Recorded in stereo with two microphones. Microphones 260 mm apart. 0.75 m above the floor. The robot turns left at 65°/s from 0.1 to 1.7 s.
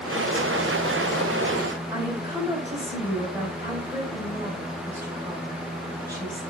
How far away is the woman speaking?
About 3.5 m.